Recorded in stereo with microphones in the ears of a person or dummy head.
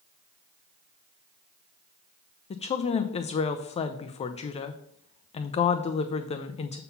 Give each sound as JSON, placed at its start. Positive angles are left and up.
{"t": 2.5, "sound": "a woman speaking", "side_deg": 35, "distance_m": 0.6}